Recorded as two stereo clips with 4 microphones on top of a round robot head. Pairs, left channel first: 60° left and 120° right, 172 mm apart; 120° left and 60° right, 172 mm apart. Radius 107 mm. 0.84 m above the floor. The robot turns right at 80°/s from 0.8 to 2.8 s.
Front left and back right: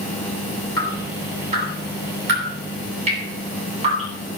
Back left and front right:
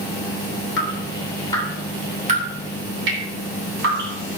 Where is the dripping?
130° left, 9.5 m; by 4.1 s 70° right, 9.5 m.